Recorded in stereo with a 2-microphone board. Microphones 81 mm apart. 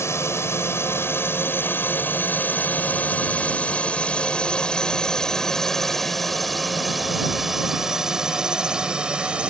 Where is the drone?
35° left (ahead or behind); by 9.5 s 15° right (ahead or behind).